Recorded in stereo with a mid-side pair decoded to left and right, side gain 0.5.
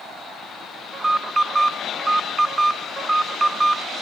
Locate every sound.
0.9 s an alarm: 30° right, 1.2 m